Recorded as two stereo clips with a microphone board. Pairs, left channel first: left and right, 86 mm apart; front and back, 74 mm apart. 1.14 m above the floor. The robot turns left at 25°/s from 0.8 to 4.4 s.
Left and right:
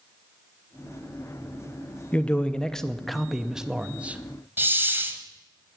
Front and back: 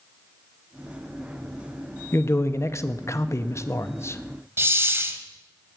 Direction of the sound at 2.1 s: 25° left.